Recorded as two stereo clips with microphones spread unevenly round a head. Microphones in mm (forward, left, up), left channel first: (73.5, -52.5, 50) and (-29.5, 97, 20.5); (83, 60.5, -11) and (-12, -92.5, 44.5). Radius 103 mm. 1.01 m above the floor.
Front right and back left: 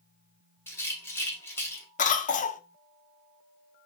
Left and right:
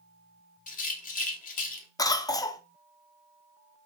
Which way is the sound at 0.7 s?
10° left.